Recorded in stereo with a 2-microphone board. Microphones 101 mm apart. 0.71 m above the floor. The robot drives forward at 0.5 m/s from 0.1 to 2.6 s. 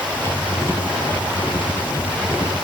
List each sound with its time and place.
Only background noise.